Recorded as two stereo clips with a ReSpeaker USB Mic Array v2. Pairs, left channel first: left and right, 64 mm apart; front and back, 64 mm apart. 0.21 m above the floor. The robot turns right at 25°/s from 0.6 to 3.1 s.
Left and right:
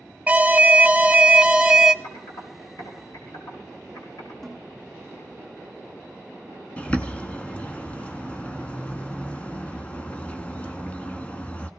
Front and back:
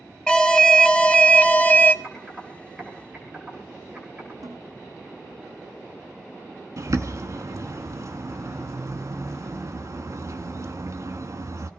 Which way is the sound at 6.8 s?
155° left.